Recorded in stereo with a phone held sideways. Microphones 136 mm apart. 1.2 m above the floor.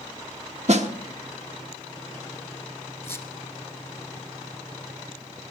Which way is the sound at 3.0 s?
20° left (ahead or behind).